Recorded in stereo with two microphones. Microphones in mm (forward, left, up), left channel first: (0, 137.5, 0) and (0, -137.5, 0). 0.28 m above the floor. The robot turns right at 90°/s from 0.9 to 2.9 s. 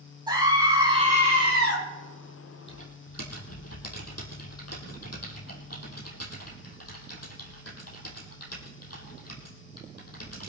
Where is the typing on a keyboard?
40° left (ahead or behind), 3.5 m; by 10.5 s 60° left (ahead or behind), 3.5 m.